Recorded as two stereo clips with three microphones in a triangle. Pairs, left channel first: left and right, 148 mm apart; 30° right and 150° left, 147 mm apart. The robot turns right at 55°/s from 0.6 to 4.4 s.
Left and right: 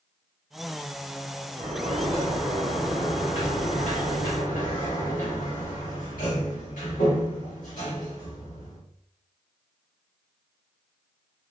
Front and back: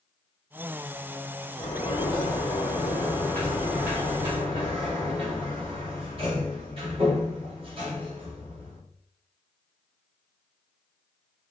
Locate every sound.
1.6 s a sliding door: 55° right, 1.7 m; by 8.8 s 100° left, 1.7 m